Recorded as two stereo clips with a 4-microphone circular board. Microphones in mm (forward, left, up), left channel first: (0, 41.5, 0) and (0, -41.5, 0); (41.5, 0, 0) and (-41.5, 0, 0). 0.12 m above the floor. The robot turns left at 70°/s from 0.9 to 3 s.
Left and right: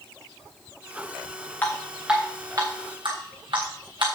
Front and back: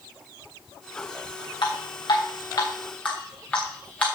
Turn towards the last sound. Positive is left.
turn(degrees=-75)